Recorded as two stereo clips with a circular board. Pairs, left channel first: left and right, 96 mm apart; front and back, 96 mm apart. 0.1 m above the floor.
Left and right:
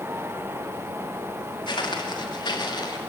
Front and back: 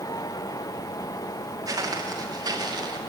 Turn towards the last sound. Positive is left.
turn(degrees=135)